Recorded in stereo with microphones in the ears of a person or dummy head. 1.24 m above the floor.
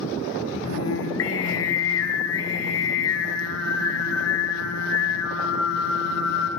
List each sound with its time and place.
0.7 s singing: 80° left, 4.5 m